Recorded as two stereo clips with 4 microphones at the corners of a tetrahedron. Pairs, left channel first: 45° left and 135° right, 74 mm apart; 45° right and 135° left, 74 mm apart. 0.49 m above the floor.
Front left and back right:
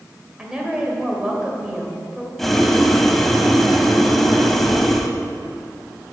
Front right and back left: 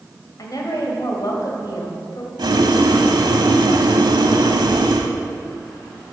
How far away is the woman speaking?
About 2 m.